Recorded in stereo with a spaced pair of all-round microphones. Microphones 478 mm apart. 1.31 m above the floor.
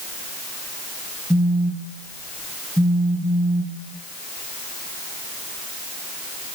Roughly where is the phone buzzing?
Centre.